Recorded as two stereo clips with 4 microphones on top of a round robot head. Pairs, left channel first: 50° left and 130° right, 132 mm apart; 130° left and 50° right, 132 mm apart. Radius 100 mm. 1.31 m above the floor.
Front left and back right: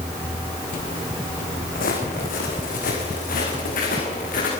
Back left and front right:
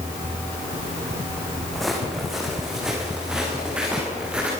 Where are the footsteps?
45° left, 6 m; by 4.5 s 35° left, 9 m.